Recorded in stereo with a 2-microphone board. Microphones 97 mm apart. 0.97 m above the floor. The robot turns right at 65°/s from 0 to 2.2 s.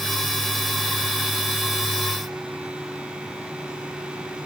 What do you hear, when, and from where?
Only background noise.